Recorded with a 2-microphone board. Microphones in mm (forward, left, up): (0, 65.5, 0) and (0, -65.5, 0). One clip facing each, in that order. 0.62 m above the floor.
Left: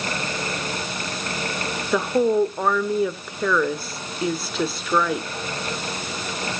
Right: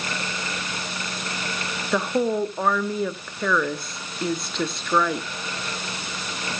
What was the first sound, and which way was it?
A woman speaking, 5° left (ahead or behind).